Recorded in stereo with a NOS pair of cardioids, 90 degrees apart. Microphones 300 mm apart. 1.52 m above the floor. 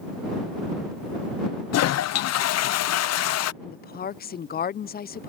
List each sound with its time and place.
1.7 s a toilet flushing: 60° left
3.6 s a woman speaking: 35° left